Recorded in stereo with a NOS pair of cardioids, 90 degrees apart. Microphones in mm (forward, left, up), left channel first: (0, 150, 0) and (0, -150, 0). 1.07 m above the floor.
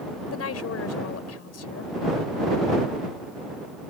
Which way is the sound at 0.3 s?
55° left.